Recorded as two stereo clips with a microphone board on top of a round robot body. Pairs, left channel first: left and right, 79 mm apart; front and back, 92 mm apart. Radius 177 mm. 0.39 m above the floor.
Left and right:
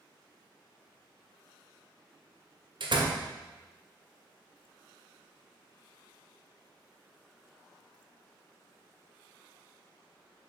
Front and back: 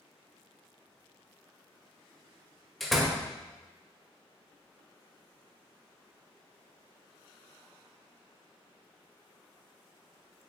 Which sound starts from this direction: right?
A door slam, at 2.8 s.